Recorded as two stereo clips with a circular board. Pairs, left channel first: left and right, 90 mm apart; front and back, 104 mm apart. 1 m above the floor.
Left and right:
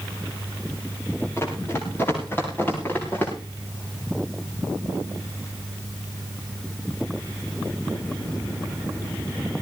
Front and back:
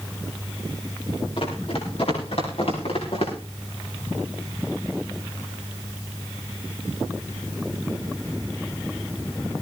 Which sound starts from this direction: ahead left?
Running footsteps, at 1.4 s.